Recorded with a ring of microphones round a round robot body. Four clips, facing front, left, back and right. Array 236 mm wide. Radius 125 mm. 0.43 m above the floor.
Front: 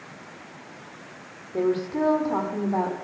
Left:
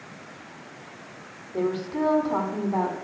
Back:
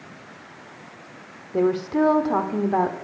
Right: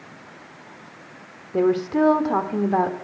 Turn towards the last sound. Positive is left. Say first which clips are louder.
# right 7 dB, back 3 dB
turn(degrees=-120)